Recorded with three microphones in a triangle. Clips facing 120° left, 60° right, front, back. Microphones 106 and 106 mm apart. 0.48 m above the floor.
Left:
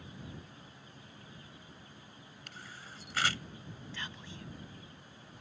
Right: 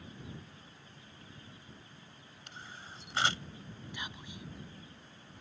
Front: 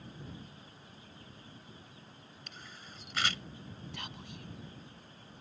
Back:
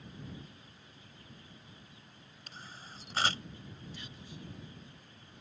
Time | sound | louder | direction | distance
2.5 | a camera shutter | right 2 dB, back 3 dB | 125° right | ?
3.9 | whispering | right 1 dB, front 2 dB | 15° left | ?